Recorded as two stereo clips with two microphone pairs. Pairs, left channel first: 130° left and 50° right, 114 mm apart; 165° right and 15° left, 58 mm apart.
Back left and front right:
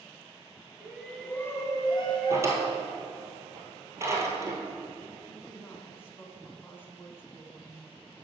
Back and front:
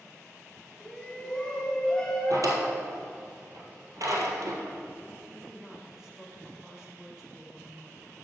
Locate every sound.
0.8 s a shout: 105° right, 1.1 m; by 2.8 s 120° left, 2 m
2.3 s a drawer: 10° left, 1.5 m
5.3 s a woman speaking: 85° left, 1.3 m